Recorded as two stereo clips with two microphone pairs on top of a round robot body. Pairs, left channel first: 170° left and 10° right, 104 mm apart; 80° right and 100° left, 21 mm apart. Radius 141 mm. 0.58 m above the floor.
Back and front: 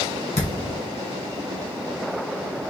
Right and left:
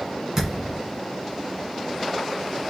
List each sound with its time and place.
0.3 s a thud: 170° left, 1.8 m